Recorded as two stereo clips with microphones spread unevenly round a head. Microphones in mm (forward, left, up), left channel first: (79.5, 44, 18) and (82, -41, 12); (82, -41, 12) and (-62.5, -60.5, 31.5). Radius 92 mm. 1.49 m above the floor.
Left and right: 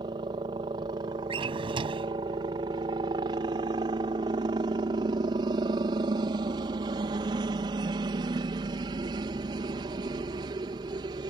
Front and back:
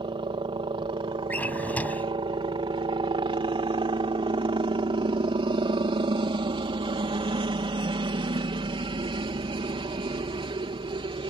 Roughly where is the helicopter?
Behind right.